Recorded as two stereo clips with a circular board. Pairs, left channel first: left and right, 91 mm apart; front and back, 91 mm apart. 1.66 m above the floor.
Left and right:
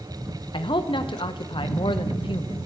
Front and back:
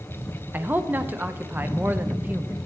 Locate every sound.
0.5 s a man speaking: 110° left, 0.7 m